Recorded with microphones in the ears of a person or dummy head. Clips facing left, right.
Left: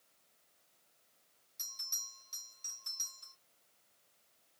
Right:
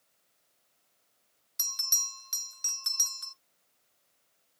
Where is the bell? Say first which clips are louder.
Right 12 dB; 80° right, 0.6 m.